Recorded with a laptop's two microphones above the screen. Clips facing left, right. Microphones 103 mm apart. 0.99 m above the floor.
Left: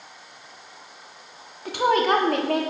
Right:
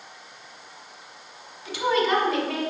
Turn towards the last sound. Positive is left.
turn(degrees=55)  # may be behind; listen again after turning